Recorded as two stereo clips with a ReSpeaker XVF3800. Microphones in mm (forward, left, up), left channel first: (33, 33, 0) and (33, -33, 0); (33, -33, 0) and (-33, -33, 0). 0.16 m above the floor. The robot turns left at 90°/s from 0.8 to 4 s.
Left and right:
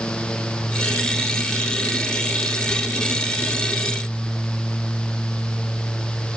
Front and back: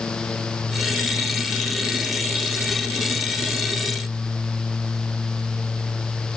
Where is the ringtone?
I don't hear a ringtone.